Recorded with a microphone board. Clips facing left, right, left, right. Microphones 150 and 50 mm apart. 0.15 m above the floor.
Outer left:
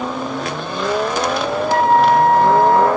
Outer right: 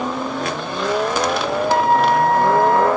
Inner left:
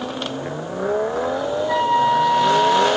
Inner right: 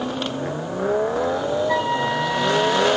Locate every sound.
1.7 s a flute: 50° left (ahead or behind), 4 m